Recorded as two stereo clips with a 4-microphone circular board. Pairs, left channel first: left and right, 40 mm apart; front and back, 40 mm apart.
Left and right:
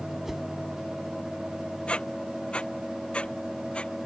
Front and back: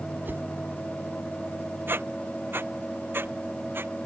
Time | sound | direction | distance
0.2 | a whoosh | 170° right | ?
1.9 | a squeak | 155° left | ?